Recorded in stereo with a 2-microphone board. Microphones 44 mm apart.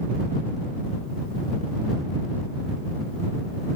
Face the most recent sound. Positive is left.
No sound to turn to.